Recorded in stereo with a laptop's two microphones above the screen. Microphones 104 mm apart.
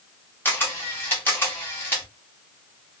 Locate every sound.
0.5 s a camera shutter: 20° left (ahead or behind), 0.9 m